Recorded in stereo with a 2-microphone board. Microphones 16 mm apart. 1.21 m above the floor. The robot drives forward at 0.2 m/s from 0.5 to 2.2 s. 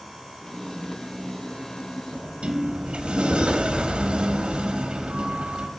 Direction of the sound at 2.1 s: 55° right (ahead or behind).